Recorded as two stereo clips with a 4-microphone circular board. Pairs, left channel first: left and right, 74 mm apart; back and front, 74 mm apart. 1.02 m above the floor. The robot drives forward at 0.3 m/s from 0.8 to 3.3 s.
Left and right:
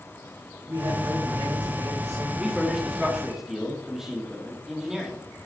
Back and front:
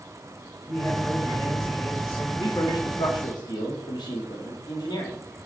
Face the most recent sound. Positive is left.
turn(degrees=-175)